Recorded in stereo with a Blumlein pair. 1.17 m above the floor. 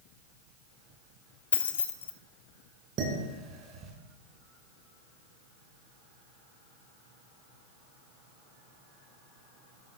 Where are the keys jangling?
70° left, 0.7 m.